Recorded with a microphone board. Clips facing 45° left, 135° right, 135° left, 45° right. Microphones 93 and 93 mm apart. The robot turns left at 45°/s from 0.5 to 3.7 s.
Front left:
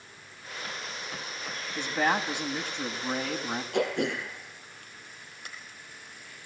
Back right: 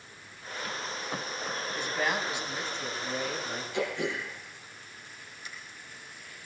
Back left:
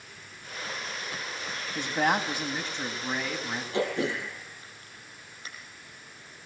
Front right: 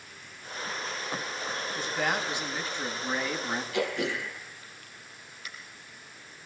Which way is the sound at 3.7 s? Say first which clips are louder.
Front left 4 dB, back left 3 dB; 75° left.